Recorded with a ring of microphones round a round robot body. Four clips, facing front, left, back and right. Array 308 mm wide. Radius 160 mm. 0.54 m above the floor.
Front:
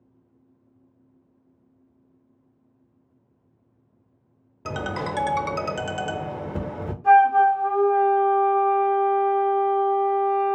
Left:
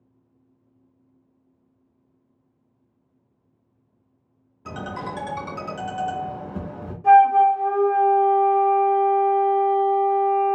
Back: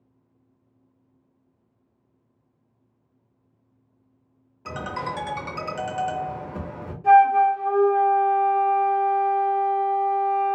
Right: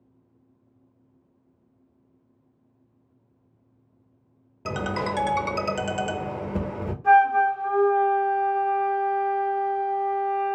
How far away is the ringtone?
About 0.5 m.